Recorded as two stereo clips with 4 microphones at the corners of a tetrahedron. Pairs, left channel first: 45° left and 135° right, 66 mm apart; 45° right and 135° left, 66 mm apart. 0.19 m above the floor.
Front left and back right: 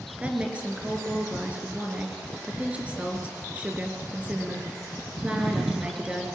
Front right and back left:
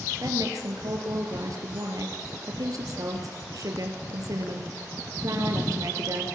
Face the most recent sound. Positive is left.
turn(degrees=155)